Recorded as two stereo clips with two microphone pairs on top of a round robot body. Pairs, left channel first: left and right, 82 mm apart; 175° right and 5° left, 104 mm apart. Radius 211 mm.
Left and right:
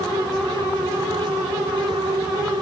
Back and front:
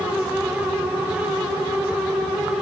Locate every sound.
Only background noise.